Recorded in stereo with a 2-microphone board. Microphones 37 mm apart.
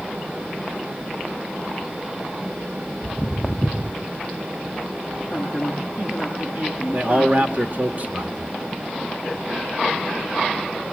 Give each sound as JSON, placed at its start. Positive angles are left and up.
{"t": 3.0, "sound": "footsteps", "side_deg": -10, "distance_m": 1.5}
{"t": 5.3, "sound": "a woman speaking", "side_deg": -30, "distance_m": 8.0}
{"t": 6.9, "sound": "a man speaking", "side_deg": -40, "distance_m": 1.6}